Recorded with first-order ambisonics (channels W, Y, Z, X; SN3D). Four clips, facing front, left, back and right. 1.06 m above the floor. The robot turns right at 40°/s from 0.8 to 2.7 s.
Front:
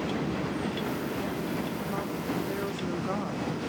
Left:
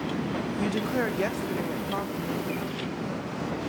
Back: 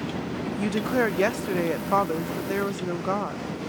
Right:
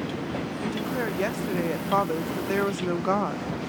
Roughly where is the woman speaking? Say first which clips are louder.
Left 2 dB, back 7 dB; behind.